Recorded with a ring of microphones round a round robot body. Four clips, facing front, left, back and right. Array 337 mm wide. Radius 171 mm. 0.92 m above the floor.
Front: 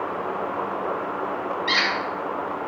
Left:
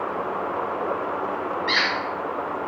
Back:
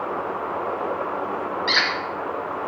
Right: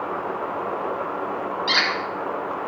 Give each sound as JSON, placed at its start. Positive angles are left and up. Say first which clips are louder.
{"t": 1.7, "sound": "a squeak", "louder": "right 1 dB, back 1 dB", "azimuth_deg": -95, "distance_m": 0.7}